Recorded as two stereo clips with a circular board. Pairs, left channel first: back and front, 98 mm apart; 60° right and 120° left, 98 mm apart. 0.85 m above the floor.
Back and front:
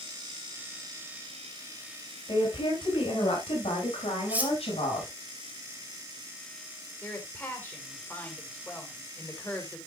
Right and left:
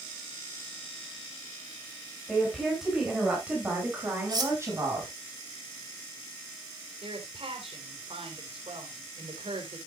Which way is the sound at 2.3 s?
145° right.